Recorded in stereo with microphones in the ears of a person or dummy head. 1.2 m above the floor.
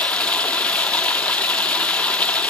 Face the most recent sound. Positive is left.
turn(degrees=10)  # may be behind; listen again after turning